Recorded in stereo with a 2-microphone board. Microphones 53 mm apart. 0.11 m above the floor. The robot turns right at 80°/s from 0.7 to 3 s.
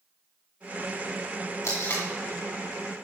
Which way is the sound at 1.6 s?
65° left (ahead or behind).